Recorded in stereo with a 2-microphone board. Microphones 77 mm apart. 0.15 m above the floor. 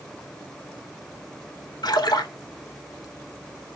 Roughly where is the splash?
Left.